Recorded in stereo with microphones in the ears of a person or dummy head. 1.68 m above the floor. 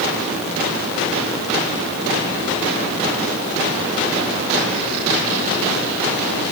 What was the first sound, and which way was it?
Only background noise.